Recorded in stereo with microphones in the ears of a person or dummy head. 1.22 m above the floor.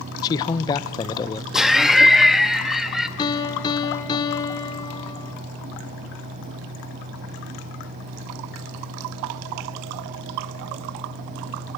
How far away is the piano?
About 1.1 m.